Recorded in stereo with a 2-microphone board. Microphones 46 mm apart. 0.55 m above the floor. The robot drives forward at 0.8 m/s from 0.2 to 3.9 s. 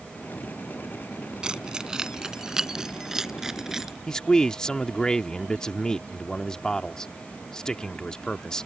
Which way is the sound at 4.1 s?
15° left (ahead or behind).